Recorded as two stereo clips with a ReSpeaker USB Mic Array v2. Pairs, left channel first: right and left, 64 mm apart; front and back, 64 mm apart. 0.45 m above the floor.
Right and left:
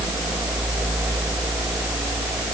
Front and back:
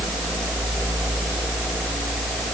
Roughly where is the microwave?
No microwave in this recording.